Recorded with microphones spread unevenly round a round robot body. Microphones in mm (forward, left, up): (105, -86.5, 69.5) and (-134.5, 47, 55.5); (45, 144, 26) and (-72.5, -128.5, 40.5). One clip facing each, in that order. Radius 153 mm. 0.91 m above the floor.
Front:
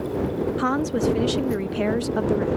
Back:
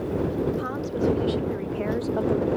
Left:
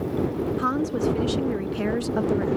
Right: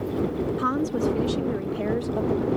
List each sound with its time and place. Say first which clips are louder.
0.6 s a woman speaking: front 4 dB, even; 30° right; by 2.6 s 40° left